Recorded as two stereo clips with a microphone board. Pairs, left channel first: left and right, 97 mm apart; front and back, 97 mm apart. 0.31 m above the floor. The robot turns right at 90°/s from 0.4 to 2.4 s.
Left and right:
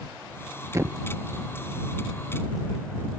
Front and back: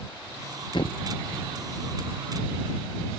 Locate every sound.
0.7 s a thud: 35° right; by 1.0 s 10° right